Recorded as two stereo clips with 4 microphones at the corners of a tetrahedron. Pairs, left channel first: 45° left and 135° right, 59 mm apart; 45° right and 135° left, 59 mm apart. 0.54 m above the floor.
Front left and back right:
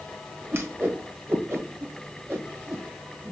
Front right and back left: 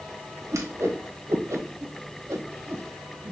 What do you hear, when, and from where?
0.5 s a whoosh: 170° left, 1.1 m